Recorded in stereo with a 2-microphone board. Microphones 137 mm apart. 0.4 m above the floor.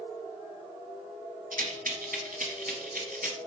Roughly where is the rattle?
Right.